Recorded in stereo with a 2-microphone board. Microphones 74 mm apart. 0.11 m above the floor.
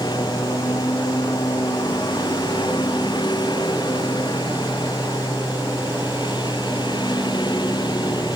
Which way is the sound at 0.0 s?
75° left (ahead or behind).